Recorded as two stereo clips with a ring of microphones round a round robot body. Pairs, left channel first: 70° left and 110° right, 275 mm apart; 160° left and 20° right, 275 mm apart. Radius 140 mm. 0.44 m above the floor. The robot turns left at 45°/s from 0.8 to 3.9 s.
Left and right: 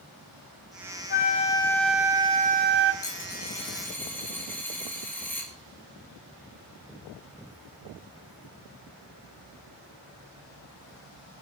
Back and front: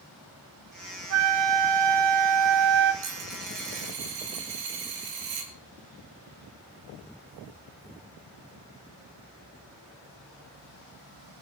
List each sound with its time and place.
1.1 s a flute: 15° left, 1.2 m; by 2.9 s 70° right, 1.2 m
3.0 s a dropped coin: 25° left, 3 m; by 5.5 s 15° right, 3 m